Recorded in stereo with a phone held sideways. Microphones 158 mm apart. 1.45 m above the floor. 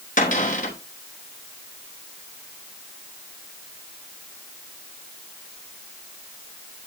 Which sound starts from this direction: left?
A cupboard door, at 0.2 s.